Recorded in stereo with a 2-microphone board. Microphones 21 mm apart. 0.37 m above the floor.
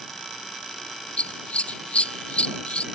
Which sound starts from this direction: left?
Scissors, at 1.2 s.